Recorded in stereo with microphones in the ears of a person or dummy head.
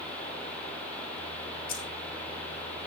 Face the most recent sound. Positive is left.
turn(degrees=80)